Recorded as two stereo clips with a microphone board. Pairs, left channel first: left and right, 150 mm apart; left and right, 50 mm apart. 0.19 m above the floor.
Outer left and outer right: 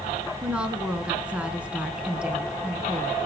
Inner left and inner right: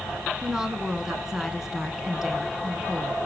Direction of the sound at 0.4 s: 5° right (ahead or behind).